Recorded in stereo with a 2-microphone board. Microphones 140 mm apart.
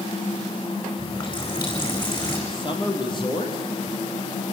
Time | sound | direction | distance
1.0 | a running tap | 35° left (ahead or behind) | 4.5 m
2.5 | a man speaking | 35° left (ahead or behind) | 3 m